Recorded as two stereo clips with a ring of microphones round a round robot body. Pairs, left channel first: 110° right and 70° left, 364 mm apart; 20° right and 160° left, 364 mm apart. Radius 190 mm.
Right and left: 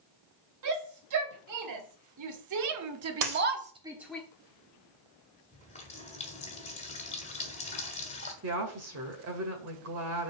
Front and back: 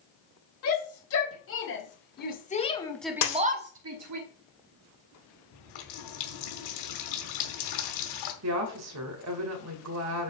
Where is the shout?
25° left, 3.5 m; by 4.2 s 160° left, 1.3 m.